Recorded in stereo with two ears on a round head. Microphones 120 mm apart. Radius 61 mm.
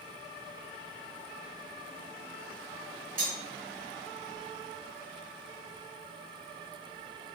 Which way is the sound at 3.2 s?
65° right (ahead or behind).